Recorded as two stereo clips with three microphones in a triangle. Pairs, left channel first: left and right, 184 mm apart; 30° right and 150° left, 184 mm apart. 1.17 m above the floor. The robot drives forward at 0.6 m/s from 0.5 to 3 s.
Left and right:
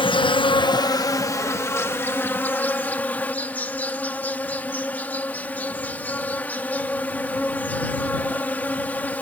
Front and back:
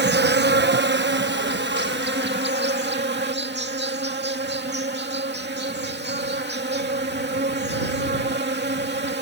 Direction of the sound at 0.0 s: 150° left.